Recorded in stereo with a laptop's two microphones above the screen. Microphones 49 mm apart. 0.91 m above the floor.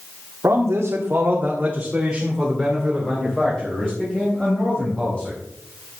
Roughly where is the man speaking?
Right.